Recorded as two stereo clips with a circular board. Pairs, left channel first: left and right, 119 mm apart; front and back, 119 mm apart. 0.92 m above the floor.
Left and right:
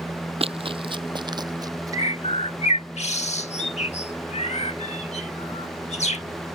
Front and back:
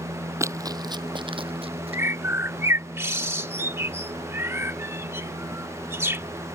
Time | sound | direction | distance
0.4 | running footsteps | 115° right | ?
1.9 | a bird | 110° left | ?